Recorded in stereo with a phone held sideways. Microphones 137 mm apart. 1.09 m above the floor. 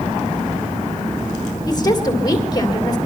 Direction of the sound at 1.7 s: 30° left (ahead or behind).